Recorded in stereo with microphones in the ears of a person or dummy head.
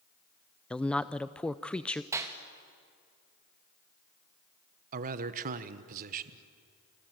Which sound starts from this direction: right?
A man speaking, at 4.9 s.